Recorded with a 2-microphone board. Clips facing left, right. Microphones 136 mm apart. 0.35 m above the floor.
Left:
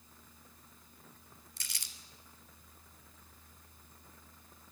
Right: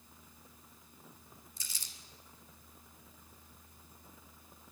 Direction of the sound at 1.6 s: 75° left (ahead or behind).